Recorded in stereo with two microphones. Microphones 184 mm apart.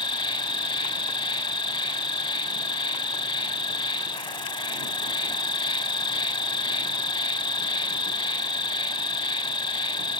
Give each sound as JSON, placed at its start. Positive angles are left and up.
{"t": 0.0, "sound": "an insect", "side_deg": 25}